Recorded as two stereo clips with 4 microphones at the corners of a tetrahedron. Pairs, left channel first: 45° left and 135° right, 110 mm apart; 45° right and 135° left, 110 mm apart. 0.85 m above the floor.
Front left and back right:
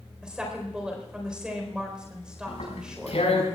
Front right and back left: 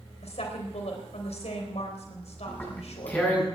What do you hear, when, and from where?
0.2 s a woman speaking: 55° right, 4 m
2.5 s tearing paper: 30° left, 7 m